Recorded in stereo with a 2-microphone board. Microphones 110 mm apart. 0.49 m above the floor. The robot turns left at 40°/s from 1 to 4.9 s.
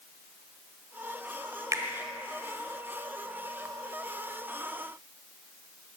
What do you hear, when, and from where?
1.7 s a finger snap: 30° right (ahead or behind), 1.3 m; by 1.8 s 35° right (ahead or behind), 1.3 m